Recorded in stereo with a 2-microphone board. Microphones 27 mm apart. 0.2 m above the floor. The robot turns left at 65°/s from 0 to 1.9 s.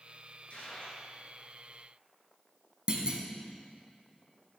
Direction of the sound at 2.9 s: 40° right (ahead or behind).